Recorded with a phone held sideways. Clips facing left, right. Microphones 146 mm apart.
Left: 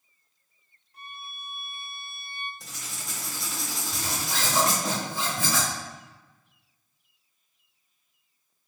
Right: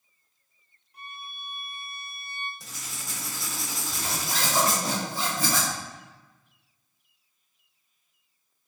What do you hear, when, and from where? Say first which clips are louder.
0.9 s a violin: right 1 dB; 15° right (ahead or behind), 0.8 m
2.6 s writing: even; centre (ahead or behind), 1.0 m
3.9 s a zipper: even; 40° right (ahead or behind), 1.9 m